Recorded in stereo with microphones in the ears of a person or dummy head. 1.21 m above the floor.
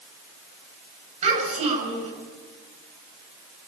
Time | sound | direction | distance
1.2 | a child speaking | 40° right (ahead or behind) | 8 m